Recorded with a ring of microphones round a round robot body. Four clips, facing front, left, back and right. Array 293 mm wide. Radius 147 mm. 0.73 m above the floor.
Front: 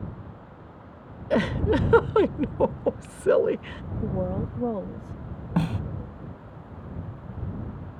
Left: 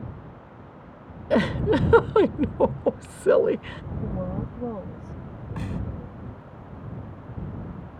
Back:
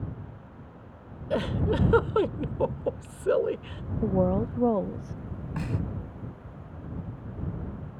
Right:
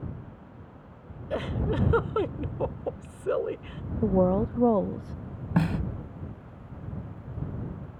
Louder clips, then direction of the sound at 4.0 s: Right 9 dB, back 4 dB; 110° right.